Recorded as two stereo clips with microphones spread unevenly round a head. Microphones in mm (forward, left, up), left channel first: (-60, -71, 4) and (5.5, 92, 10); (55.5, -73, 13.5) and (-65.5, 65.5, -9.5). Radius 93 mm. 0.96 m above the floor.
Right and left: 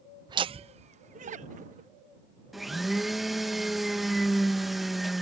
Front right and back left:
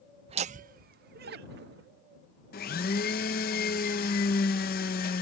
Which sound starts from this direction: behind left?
Laughter, at 0.3 s.